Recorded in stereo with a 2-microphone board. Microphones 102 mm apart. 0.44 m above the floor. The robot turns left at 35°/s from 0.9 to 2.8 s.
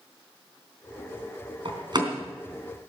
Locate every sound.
1.6 s a door slam: 55° right (ahead or behind), 3 m; by 2.1 s 40° right (ahead or behind), 3 m